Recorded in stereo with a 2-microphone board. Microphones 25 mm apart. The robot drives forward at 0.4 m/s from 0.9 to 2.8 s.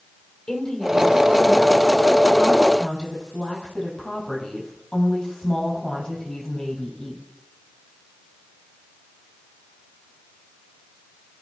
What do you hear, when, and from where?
0.5 s a woman speaking: 30° left (ahead or behind), 5 m; by 7.2 s 25° left (ahead or behind), 5.5 m